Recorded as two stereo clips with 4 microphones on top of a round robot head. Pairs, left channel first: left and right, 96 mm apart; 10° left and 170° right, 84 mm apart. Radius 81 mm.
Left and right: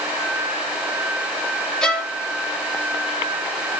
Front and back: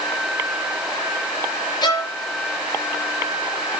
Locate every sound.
1.8 s a violin: 10° left, 2 m